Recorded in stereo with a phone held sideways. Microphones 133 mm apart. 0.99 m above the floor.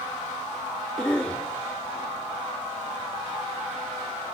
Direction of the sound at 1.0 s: 5° left (ahead or behind).